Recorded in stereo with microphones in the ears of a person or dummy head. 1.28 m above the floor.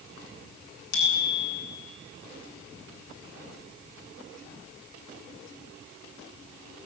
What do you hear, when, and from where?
0.9 s a bicycle bell: 75° left (ahead or behind), 8.5 m